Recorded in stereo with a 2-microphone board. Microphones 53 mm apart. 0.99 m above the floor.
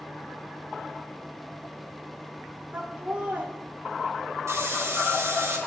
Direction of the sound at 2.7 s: 25° right (ahead or behind).